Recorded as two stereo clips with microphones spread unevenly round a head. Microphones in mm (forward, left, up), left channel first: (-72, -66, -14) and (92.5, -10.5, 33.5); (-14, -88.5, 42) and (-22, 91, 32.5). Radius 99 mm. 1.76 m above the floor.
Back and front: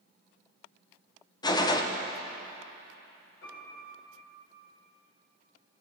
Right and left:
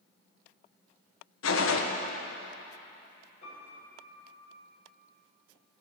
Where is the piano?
145° right, 7 m.